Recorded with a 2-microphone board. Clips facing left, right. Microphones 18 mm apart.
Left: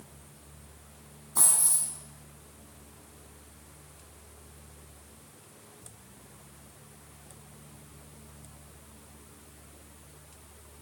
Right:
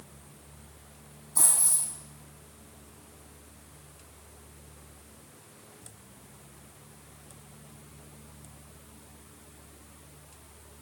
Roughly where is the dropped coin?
Left.